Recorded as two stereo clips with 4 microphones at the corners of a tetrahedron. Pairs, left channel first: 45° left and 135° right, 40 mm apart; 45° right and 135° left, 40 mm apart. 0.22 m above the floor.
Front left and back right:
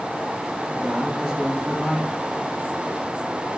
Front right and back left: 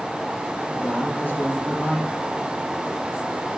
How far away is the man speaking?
About 4 m.